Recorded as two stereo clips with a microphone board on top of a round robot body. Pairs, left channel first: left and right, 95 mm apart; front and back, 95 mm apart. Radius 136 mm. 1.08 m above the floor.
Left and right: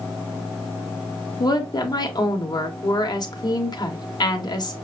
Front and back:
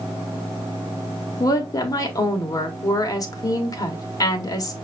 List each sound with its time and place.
1.4 s a woman speaking: 50° left, 1.4 m